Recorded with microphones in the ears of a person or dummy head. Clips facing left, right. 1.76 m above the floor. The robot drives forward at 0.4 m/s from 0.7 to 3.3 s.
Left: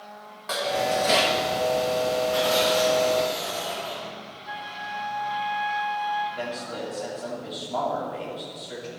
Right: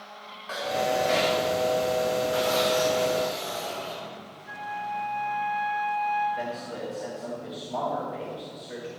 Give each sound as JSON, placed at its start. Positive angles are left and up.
{"t": 0.5, "sound": "dishes clattering", "side_deg": 50, "distance_m": 1.6}
{"t": 2.3, "sound": "tearing paper", "side_deg": -45, "distance_m": 3.5}
{"t": 4.5, "sound": "a flute", "side_deg": 45, "distance_m": 2.5}
{"t": 6.3, "sound": "a man speaking", "side_deg": -5, "distance_m": 2.5}